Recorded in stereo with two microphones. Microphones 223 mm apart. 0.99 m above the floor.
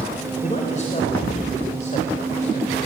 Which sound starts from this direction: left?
A man speaking, at 0.4 s.